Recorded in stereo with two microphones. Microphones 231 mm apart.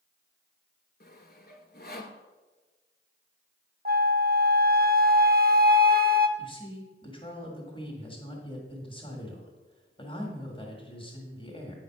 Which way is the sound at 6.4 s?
20° left (ahead or behind).